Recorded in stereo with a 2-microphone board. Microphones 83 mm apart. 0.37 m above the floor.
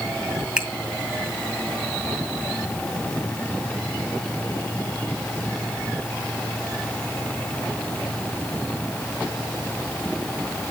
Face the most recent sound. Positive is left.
turn(degrees=-10)  # may be behind; listen again after turning